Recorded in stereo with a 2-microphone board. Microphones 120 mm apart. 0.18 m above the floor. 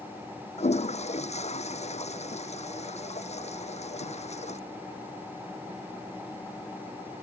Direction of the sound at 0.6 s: 70° left (ahead or behind).